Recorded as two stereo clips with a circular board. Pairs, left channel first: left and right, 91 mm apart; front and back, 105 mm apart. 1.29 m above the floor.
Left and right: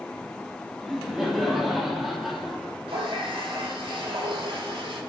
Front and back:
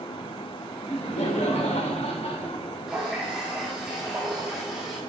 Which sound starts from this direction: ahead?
Laughter, at 0.8 s.